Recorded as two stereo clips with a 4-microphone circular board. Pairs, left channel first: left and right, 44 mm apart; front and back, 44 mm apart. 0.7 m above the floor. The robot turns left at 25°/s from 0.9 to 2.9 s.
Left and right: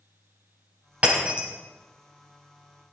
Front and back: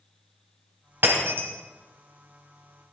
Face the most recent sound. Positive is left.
turn(degrees=170)